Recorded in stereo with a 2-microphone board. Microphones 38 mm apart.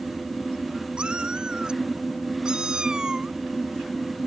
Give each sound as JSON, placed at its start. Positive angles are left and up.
{"t": 1.0, "sound": "a cat meowing", "side_deg": -25}